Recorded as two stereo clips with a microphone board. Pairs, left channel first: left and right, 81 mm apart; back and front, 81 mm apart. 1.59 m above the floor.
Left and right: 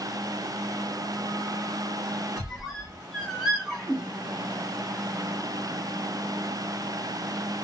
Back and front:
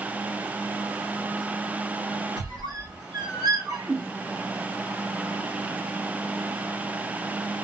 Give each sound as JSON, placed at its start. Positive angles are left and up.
{"t": 2.4, "sound": "a squeak", "azimuth_deg": -5, "distance_m": 1.0}